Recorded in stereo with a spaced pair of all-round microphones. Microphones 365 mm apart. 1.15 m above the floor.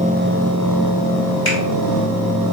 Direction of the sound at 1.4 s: 70° left (ahead or behind).